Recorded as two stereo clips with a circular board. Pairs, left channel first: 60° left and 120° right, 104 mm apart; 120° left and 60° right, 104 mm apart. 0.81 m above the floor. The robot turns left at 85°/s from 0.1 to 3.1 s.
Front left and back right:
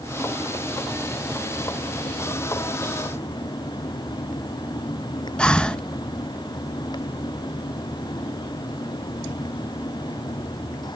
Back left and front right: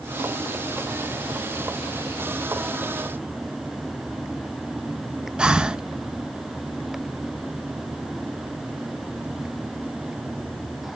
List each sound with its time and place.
5.4 s breathing: straight ahead, 0.6 m